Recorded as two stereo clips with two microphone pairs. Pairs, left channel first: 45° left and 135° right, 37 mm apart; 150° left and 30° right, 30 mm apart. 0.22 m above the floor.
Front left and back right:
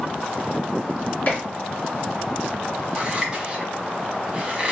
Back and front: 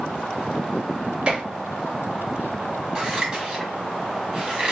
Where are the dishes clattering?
15° left, 1.7 m.